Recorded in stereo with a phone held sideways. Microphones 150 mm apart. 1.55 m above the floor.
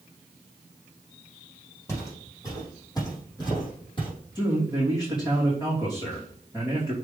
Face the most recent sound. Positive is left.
turn(degrees=25)  # may be behind; listen again after turning